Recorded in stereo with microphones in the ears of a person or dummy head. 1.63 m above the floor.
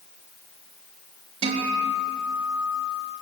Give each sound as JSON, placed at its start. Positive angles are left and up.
{"t": 1.4, "sound": "a guitar", "side_deg": -30, "distance_m": 4.0}